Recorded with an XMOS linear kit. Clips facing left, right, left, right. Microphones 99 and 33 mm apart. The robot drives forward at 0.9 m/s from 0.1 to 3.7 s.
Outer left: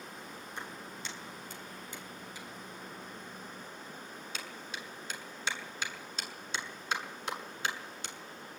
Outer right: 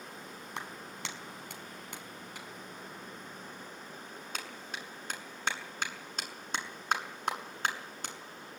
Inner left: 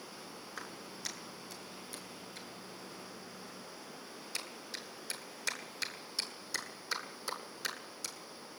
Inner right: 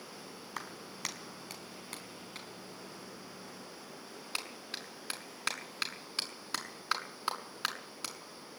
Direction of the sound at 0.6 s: 75° right (ahead or behind).